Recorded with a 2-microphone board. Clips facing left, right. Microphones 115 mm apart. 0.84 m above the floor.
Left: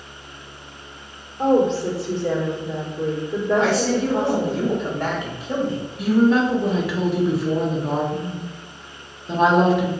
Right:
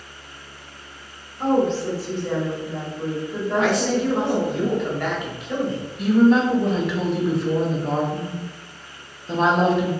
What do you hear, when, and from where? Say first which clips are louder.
1.4 s a woman speaking: left 2 dB; 65° left (ahead or behind), 1.8 m
3.5 s a man speaking: even; 30° left (ahead or behind), 1.2 m
6.0 s a woman speaking: right 1 dB; 5° left (ahead or behind), 0.9 m